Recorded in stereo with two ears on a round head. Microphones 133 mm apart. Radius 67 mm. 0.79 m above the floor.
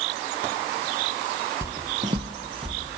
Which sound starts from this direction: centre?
Footsteps, at 1.6 s.